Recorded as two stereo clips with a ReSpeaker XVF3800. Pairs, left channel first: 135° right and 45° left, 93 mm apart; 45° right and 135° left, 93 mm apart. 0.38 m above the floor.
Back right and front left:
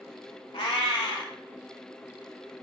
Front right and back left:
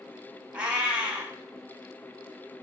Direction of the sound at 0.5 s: 150° right.